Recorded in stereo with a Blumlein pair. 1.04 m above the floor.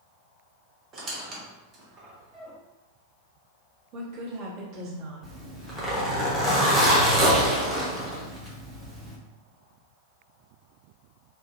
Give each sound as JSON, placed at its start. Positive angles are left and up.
{"t": 0.9, "sound": "a squeak", "azimuth_deg": -25, "distance_m": 0.7}
{"t": 3.9, "sound": "a woman speaking", "azimuth_deg": -40, "distance_m": 1.0}
{"t": 5.2, "sound": "a zipper", "azimuth_deg": -10, "distance_m": 0.9}